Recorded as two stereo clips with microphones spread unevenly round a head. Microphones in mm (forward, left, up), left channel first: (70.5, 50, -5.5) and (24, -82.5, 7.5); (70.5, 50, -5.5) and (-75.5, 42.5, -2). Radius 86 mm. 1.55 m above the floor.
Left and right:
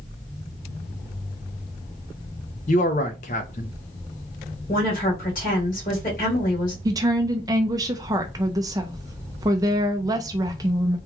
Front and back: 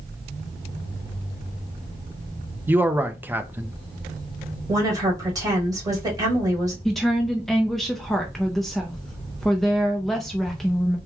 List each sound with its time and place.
2.7 s a man speaking: 105° left, 0.7 m
4.7 s a woman speaking: 115° left, 2 m
6.8 s a woman speaking: 85° right, 0.5 m